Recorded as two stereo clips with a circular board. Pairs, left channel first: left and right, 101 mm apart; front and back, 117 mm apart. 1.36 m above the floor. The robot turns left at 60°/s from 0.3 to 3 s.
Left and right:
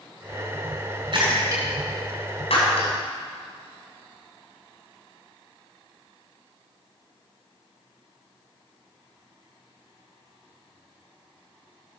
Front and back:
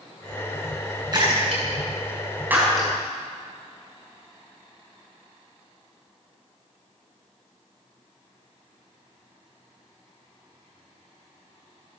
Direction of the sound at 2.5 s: 105° left.